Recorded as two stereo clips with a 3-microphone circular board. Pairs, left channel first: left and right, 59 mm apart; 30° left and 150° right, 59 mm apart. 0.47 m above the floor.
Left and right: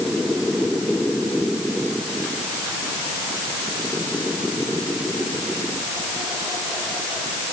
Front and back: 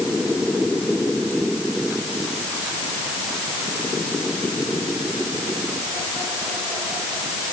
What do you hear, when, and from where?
Only background noise.